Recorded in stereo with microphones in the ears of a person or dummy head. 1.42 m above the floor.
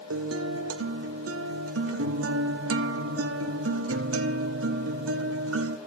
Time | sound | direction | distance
0.1 | a guitar | 65° right (ahead or behind) | 1.0 m